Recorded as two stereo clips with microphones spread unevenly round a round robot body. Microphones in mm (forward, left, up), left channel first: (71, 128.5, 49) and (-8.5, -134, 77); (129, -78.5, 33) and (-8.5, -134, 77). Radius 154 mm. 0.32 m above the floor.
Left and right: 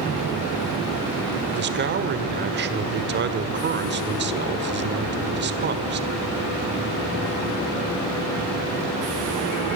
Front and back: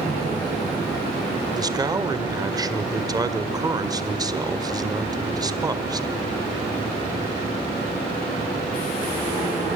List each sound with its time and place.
1.5 s a man speaking: 85° right, 1.7 m